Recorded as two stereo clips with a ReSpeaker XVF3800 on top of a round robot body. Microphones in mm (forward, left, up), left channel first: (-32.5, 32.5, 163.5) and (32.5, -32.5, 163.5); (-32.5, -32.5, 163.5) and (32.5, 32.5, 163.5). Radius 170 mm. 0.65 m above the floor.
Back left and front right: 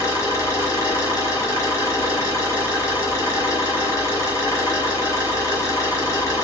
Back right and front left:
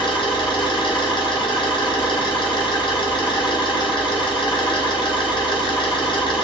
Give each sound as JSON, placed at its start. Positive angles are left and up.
{"t": 0.0, "sound": "an engine running", "azimuth_deg": -170, "distance_m": 1.6}